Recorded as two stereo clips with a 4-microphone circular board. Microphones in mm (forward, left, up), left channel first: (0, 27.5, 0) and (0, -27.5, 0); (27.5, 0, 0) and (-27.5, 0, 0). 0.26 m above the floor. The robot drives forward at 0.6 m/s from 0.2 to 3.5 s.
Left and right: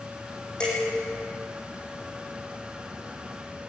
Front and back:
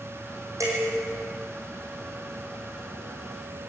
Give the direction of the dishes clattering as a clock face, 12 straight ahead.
7 o'clock.